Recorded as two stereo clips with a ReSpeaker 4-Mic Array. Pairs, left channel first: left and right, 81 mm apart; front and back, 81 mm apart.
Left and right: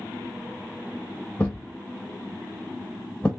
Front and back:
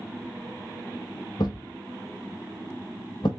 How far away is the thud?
About 1.6 m.